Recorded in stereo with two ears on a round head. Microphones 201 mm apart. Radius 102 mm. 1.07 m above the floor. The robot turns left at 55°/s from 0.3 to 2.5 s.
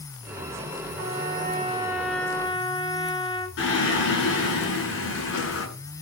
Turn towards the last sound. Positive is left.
turn(degrees=60)  # may be behind; listen again after turning